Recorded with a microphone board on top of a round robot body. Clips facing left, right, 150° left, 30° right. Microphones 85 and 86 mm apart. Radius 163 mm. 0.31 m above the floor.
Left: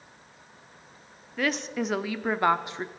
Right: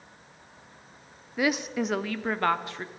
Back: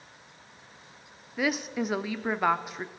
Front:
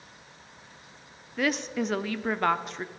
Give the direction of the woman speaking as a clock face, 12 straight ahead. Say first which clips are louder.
Right 2 dB, front 1 dB; 5 o'clock.